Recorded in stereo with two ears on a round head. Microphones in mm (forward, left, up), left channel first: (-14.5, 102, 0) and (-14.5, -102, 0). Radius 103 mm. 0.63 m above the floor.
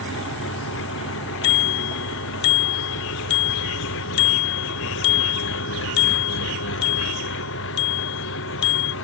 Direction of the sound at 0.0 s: 55° left (ahead or behind).